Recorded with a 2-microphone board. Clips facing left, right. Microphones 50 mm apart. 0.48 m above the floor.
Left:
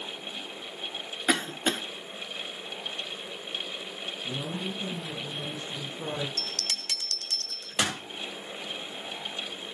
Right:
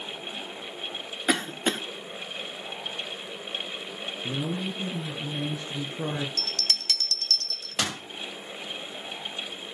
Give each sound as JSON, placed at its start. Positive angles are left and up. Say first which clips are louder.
{"t": 1.3, "sound": "a cough", "louder": "right 1 dB", "side_deg": -5, "distance_m": 0.8}
{"t": 4.2, "sound": "a woman speaking", "louder": "right 4 dB", "side_deg": -80, "distance_m": 6.5}
{"t": 6.4, "sound": "a bell", "louder": "right 3 dB", "side_deg": 15, "distance_m": 2.0}